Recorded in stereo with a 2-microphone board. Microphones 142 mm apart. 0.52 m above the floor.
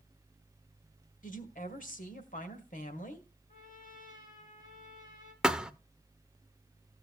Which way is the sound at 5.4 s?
5° right (ahead or behind).